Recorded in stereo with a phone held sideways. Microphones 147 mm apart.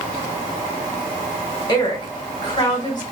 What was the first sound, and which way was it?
A woman speaking, 30° left (ahead or behind).